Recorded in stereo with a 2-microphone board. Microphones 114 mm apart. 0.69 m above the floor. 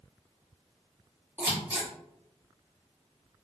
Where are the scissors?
15° right (ahead or behind), 1.2 m.